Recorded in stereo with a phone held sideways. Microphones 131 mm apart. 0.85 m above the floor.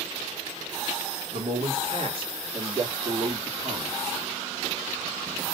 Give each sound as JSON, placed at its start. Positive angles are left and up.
{"t": 1.3, "sound": "a man speaking", "side_deg": -50, "distance_m": 2.0}